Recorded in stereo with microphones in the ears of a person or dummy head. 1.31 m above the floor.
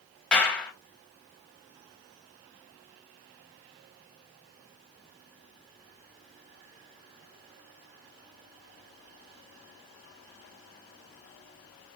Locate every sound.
0.3 s a clap: 5° left (ahead or behind), 1.0 m